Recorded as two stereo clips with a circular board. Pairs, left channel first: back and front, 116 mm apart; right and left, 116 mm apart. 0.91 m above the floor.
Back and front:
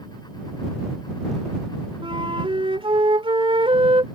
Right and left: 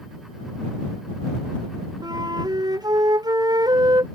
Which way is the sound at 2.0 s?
40° left.